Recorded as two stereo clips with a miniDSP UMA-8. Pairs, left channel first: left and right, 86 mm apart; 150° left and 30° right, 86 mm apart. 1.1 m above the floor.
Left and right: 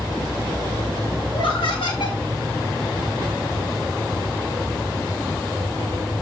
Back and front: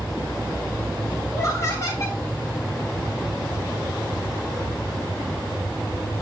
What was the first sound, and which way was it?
Laughter, 100° left.